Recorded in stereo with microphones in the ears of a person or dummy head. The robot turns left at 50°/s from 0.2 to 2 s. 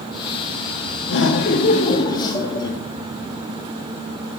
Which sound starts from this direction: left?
Laughter, at 1.1 s.